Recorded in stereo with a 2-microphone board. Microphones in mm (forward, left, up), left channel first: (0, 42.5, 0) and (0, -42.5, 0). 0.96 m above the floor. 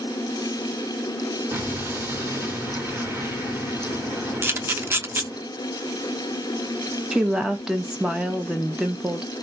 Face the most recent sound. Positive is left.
turn(degrees=-5)  # may be behind; listen again after turning